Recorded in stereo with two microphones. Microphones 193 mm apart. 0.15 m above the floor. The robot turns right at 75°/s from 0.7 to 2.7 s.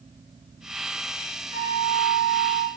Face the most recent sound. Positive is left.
turn(degrees=-70)